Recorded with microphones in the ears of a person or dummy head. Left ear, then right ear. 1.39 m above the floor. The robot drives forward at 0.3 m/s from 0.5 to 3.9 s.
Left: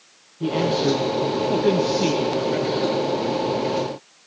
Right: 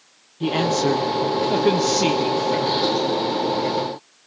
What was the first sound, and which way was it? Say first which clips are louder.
A man speaking: right 1 dB; 60° right (ahead or behind).